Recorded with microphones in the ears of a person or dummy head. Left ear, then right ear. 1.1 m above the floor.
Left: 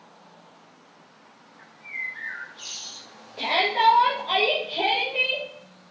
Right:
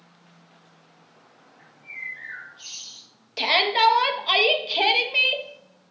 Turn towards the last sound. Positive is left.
turn(degrees=-55)  # may be behind; listen again after turning